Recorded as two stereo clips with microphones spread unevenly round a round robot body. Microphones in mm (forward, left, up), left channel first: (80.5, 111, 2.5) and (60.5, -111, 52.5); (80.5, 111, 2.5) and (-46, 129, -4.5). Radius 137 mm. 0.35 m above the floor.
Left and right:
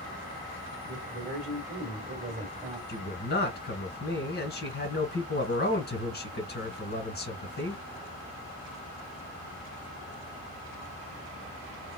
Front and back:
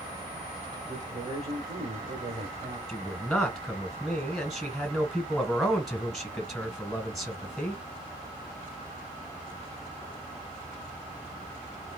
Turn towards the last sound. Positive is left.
turn(degrees=80)